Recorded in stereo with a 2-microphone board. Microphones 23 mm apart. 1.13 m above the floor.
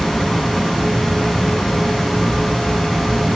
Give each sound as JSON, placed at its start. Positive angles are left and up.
{"t": 0.0, "sound": "running water", "side_deg": 15, "distance_m": 1.3}